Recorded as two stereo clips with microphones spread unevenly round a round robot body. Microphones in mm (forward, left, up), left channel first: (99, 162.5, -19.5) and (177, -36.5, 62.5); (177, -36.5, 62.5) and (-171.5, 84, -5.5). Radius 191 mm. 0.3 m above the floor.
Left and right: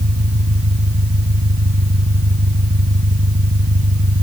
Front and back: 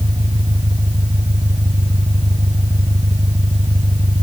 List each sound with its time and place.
0.0 s an engine running: 120° right